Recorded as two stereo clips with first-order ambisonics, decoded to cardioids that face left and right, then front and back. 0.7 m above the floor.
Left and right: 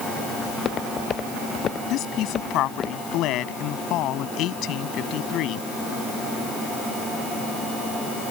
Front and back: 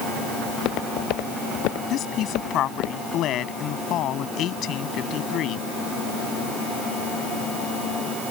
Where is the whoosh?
No whoosh in this recording.